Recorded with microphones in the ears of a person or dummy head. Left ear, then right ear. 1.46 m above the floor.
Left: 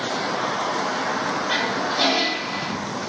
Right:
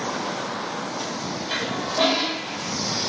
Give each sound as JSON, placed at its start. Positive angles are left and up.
{"t": 1.5, "sound": "a toilet flushing", "side_deg": -30, "distance_m": 4.5}